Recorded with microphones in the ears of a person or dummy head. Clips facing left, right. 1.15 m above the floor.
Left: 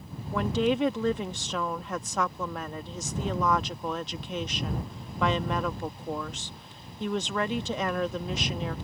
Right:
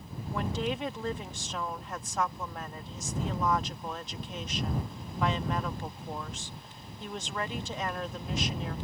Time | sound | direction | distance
0.3 | a woman speaking | 65° left (ahead or behind) | ?